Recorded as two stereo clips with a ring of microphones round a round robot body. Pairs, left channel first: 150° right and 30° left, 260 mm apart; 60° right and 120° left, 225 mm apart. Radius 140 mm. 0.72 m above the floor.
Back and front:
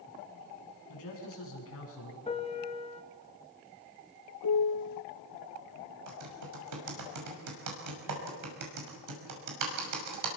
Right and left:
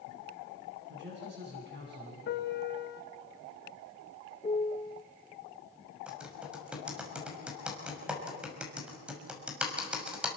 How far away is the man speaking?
About 8.5 m.